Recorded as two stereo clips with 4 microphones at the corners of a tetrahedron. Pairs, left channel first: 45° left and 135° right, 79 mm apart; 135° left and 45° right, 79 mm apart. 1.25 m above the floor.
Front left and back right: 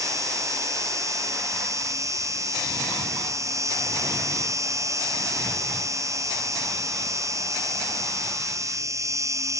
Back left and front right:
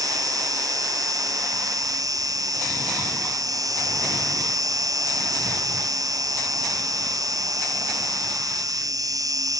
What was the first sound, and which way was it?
An insect, 85° right.